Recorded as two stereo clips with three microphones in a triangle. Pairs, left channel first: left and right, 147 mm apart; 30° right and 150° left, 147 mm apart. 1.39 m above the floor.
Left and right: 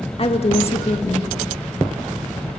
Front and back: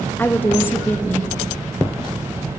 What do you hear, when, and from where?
0.2 s a woman speaking: 45° left, 2 m